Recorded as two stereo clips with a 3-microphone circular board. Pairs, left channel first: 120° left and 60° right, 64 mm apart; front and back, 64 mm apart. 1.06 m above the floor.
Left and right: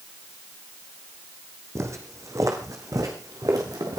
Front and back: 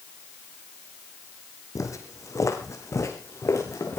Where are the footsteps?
25° right, 2.5 m; by 4.0 s 40° right, 5 m.